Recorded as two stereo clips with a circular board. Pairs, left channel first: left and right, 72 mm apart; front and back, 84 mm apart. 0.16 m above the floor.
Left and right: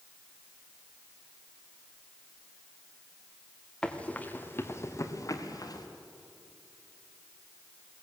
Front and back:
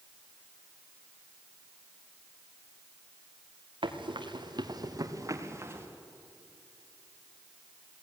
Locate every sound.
3.8 s running footsteps: 170° left, 2.5 m; by 5.9 s 115° left, 3.5 m